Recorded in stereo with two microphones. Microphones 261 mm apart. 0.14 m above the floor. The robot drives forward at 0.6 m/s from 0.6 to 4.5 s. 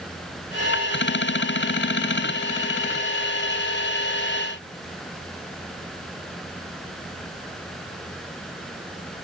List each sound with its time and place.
Only background noise.